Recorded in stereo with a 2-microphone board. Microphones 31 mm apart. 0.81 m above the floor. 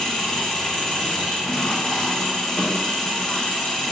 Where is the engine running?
15° left (ahead or behind), 0.8 m.